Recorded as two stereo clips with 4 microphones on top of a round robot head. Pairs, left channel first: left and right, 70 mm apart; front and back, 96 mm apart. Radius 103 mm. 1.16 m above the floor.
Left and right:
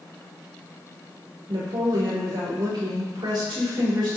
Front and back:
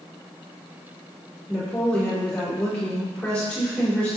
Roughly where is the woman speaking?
Right.